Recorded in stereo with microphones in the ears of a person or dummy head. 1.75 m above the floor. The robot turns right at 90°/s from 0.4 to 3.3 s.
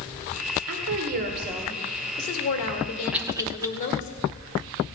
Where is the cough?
5° right (ahead or behind), 0.8 m; by 3.7 s 20° right (ahead or behind), 0.8 m.